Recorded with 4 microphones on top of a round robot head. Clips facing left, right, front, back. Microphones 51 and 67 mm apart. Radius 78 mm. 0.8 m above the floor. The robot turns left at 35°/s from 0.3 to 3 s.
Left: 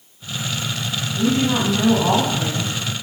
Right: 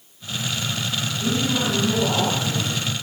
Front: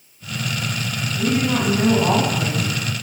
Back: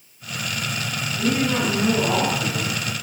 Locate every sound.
1.2 s a woman speaking: 95° left, 8 m; by 2.8 s 35° left, 8 m